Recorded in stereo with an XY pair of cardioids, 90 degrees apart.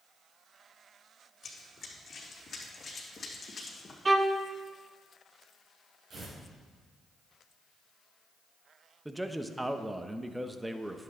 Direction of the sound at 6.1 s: 50° right.